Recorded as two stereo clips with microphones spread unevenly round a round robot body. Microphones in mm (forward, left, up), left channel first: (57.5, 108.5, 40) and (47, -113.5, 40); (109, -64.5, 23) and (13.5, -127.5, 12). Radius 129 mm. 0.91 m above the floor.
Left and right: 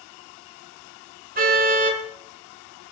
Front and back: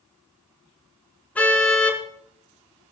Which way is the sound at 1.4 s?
45° right.